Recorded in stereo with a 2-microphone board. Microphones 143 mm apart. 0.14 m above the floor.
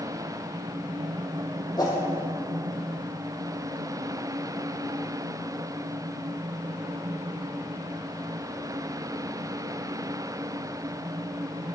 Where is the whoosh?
25° left (ahead or behind), 3.5 m.